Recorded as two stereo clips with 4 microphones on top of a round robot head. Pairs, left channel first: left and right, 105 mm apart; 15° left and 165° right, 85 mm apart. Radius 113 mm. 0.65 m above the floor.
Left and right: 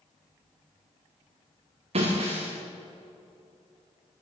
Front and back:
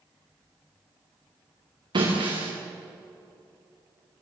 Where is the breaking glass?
125° right, 6 m.